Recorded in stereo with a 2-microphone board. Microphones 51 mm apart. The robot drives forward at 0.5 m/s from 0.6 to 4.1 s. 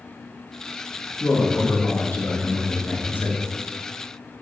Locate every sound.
1.2 s a man speaking: 35° left (ahead or behind), 1.9 m; by 3.4 s 45° left (ahead or behind), 1.7 m